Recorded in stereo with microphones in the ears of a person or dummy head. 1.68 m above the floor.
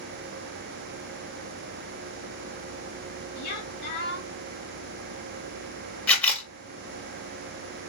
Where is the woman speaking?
60° left (ahead or behind), 2.5 m.